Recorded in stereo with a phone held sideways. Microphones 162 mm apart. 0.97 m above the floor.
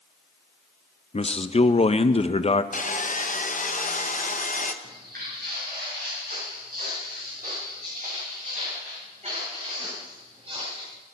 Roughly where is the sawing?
Left.